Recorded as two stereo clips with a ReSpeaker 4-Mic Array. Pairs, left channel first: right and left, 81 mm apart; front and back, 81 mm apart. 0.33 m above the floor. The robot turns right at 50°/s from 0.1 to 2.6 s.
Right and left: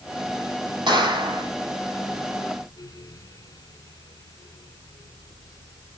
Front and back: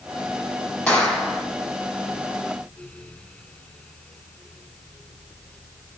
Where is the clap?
75° left, 8 m; by 1.4 s 105° left, 8 m.